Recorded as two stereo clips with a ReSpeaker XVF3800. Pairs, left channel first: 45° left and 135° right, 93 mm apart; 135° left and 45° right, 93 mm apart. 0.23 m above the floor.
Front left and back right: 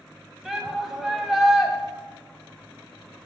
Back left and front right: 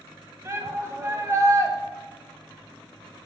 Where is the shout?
55° right, 1.0 m.